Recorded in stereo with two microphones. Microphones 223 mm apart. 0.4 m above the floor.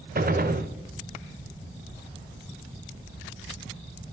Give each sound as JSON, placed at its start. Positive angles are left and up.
{"t": 0.1, "sound": "a gunshot", "side_deg": -45, "distance_m": 0.6}